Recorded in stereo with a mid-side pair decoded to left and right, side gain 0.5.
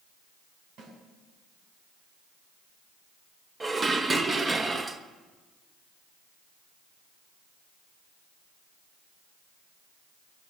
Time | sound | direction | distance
0.8 | a snare drum | 65° right | 7.5 m
3.6 | dishes clattering | 25° right | 1.2 m